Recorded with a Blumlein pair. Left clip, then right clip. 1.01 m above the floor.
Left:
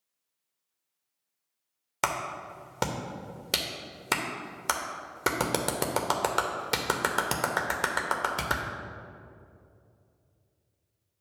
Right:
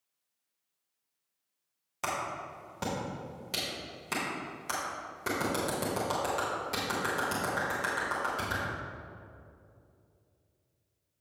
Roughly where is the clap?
Ahead left.